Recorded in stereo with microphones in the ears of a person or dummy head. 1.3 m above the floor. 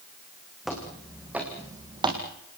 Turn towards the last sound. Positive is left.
turn(degrees=-25)  # may be behind; listen again after turning